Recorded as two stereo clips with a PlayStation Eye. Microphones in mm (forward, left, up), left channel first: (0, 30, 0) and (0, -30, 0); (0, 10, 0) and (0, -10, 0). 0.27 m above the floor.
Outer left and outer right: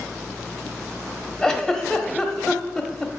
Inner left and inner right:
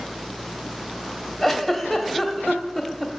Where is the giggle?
10° left (ahead or behind), 1.1 m.